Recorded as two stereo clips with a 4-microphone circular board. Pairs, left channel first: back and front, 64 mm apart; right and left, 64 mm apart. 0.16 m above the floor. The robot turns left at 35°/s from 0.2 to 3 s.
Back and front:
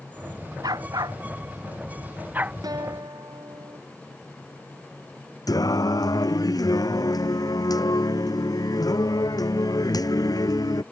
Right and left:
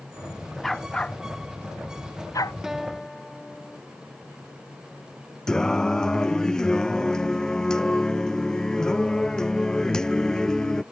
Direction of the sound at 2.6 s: 10° left.